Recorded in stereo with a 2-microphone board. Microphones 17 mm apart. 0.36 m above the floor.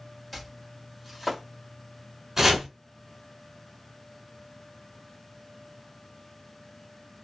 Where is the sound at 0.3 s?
Centre (ahead or behind), 1.3 m.